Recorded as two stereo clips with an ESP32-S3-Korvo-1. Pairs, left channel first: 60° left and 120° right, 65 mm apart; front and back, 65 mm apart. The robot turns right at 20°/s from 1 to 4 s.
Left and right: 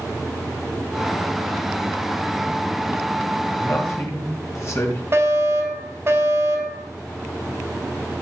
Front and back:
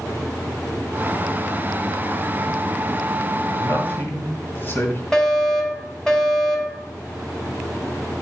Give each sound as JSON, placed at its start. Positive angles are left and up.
{"t": 3.6, "sound": "a man speaking", "azimuth_deg": 35, "distance_m": 2.5}
{"t": 5.1, "sound": "a fire alarm", "azimuth_deg": -80, "distance_m": 3.5}